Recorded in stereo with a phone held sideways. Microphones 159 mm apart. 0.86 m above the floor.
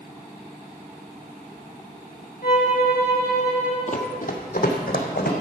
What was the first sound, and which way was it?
A violin, 65° left (ahead or behind).